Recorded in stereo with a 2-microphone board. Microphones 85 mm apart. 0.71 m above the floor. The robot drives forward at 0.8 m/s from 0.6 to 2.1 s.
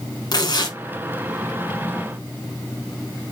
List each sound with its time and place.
0.3 s tearing paper: 55° left (ahead or behind), 1.2 m; by 0.8 s 60° left (ahead or behind), 1.2 m